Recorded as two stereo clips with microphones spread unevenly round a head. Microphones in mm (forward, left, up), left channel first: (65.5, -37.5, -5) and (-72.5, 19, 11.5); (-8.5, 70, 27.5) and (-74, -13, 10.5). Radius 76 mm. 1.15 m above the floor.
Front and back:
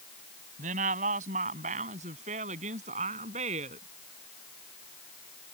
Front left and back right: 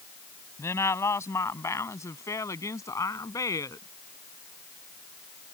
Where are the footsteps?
No footsteps in this recording.